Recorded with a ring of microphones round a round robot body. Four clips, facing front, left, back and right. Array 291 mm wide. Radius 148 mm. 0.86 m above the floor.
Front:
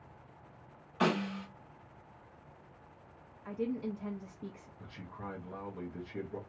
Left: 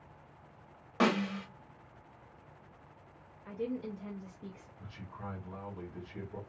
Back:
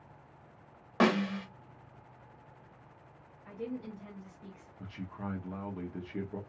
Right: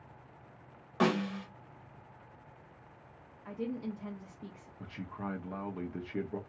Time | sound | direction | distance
1.0 | a snare drum | 175° left | 1.7 m
3.5 | a woman speaking | 30° right | 1.0 m
4.8 | a man speaking | 110° right | 1.0 m